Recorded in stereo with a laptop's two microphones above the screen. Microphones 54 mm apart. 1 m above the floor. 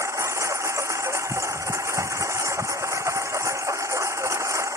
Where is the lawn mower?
80° right; by 4.8 s 85° right.